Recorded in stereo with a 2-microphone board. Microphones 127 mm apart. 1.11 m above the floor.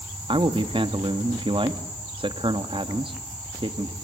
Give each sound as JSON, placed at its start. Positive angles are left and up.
{"t": 0.3, "sound": "a man speaking", "side_deg": -40, "distance_m": 1.7}